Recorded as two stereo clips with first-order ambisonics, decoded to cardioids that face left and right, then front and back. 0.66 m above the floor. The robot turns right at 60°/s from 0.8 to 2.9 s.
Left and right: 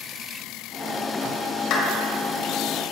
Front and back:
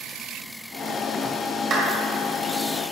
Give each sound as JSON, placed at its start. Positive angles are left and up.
{"t": 1.7, "sound": "a clap", "azimuth_deg": 130, "distance_m": 2.5}